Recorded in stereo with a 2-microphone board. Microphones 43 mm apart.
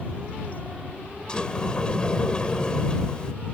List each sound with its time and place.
1.3 s a sliding door: 20° left (ahead or behind)